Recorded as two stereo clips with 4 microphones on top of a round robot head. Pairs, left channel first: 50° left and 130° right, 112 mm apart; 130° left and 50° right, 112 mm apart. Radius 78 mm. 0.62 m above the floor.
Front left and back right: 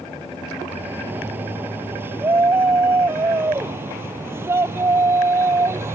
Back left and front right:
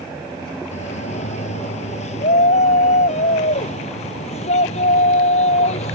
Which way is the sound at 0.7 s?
155° left.